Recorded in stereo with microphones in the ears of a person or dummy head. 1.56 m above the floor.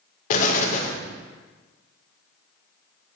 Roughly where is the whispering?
I don't hear whispering.